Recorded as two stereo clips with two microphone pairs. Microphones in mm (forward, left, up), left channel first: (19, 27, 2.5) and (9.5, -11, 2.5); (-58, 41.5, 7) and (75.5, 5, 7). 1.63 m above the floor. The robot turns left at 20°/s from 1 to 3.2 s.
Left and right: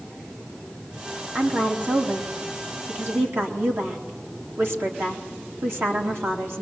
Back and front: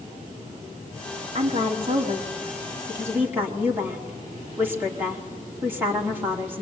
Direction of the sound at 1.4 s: 55° right.